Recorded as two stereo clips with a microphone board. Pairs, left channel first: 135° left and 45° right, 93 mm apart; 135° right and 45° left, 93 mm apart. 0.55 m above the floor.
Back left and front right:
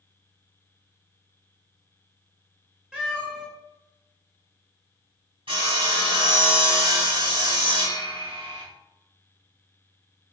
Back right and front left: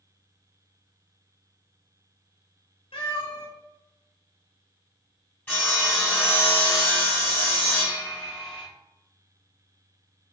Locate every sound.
2.9 s a cat meowing: 120° right, 1.7 m
5.5 s sawing: 65° right, 1.9 m